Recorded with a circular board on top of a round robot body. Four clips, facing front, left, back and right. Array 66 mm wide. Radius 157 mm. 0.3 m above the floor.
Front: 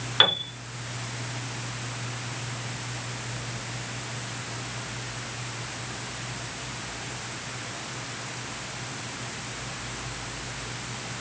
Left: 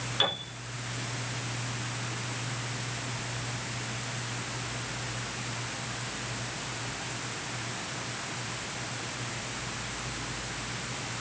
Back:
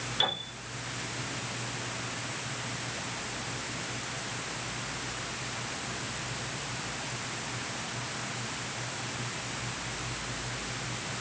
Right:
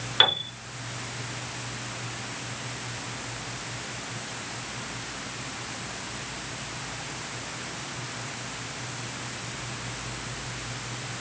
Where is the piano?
35° right, 3.5 m.